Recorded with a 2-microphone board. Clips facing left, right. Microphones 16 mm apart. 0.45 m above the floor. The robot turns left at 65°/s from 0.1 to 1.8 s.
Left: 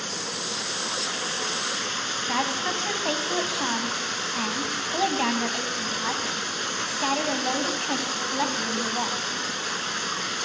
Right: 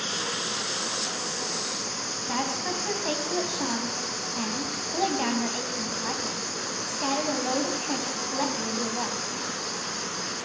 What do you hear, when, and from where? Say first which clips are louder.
0.0 s running water: right 1 dB; 150° right, 1.5 m; by 10.4 s 100° left, 1.5 m
2.3 s a woman speaking: left 2 dB; 30° left (ahead or behind), 2.5 m